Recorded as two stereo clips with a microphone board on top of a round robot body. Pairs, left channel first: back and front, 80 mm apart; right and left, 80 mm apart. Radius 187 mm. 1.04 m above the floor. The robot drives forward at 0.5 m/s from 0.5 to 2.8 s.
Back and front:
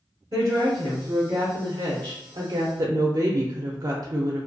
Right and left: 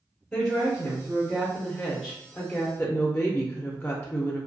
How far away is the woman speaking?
About 1.5 m.